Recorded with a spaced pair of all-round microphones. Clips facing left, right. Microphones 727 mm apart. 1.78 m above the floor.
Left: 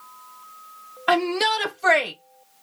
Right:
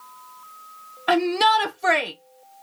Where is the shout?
5° left (ahead or behind), 0.6 m.